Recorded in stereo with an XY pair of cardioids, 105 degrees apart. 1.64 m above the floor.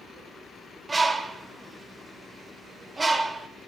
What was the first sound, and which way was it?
A bird, 25° right.